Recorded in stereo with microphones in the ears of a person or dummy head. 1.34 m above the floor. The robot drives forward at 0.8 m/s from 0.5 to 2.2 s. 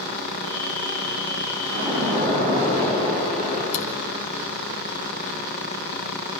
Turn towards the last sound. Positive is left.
turn(degrees=85)